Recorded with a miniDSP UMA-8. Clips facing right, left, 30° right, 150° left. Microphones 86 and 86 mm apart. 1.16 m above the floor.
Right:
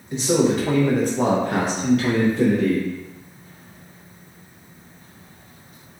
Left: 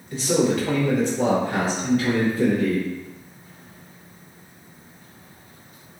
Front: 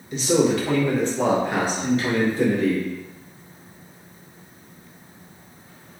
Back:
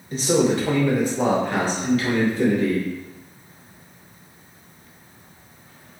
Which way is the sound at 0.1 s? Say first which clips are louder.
Right 2 dB, even; 160° right.